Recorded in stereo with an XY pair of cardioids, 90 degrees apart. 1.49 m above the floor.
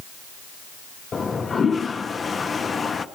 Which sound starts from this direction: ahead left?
A toilet flushing, at 1.1 s.